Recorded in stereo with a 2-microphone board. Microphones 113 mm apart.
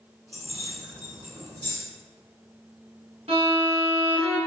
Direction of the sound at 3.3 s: 70° right (ahead or behind).